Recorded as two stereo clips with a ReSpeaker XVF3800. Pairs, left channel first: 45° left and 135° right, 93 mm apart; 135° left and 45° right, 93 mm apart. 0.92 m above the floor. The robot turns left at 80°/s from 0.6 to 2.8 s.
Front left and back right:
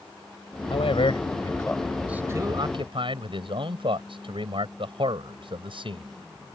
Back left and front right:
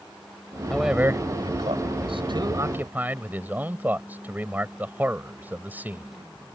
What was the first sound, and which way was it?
A man speaking, 55° left.